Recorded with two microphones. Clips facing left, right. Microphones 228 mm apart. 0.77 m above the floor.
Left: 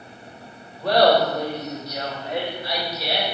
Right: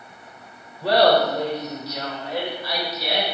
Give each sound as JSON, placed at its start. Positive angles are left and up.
{"t": 0.8, "sound": "laughter", "side_deg": -5, "distance_m": 3.0}